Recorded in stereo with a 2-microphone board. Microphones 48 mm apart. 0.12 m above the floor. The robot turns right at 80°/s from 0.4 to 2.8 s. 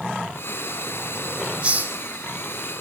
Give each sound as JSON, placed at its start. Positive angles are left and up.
{"t": 1.6, "sound": "a hiss", "side_deg": -25, "distance_m": 1.9}